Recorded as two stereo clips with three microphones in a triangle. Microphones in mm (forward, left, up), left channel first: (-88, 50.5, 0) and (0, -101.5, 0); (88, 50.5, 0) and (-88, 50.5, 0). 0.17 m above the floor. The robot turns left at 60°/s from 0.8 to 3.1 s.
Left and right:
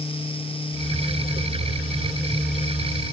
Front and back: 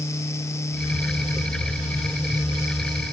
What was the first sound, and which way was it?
Only background noise.